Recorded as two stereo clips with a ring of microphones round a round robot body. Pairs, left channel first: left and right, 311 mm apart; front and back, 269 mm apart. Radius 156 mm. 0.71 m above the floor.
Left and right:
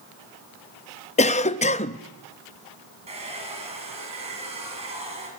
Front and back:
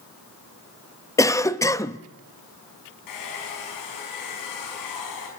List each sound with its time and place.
1.2 s a cough: 60° left, 0.7 m
3.1 s a hair dryer: 20° right, 6 m